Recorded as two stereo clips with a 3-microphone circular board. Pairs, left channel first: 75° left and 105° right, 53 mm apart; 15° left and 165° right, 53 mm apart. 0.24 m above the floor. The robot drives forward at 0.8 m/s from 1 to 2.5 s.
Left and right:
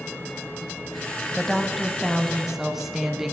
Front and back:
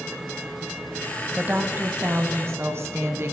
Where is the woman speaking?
155° left, 1.1 m; by 3.3 s 170° left, 1.7 m.